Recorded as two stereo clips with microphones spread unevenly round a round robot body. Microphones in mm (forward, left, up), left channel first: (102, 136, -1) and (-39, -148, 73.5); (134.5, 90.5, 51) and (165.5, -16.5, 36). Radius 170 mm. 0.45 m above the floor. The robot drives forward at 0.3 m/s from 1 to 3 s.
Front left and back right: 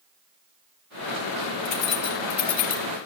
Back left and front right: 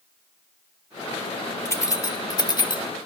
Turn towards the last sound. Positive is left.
turn(degrees=60)